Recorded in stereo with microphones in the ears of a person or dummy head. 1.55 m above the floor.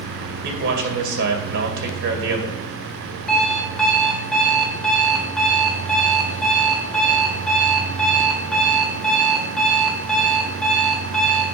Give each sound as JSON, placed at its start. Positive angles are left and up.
{"t": 0.4, "sound": "a man speaking", "side_deg": -70, "distance_m": 2.0}
{"t": 3.3, "sound": "an alarm clock", "side_deg": 10, "distance_m": 2.0}